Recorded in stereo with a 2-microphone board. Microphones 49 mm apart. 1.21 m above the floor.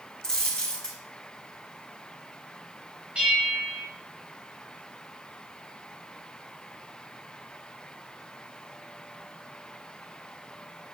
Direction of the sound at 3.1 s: 25° right (ahead or behind).